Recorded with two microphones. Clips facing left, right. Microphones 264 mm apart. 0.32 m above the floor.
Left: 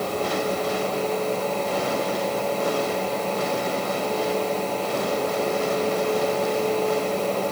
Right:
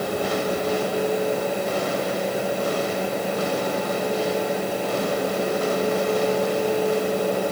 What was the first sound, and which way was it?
Only background noise.